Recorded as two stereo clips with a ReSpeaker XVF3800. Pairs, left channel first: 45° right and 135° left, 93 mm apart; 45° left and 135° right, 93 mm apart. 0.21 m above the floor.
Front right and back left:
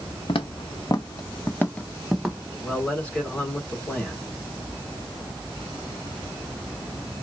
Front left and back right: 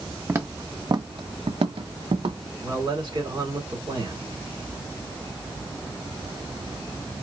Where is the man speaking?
120° right, 2.5 m.